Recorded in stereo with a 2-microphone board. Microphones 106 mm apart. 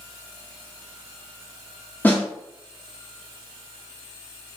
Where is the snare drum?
20° left (ahead or behind), 1.3 m.